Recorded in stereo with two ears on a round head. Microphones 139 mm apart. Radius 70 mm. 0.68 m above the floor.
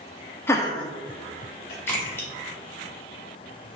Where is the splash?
15° left (ahead or behind), 2 m.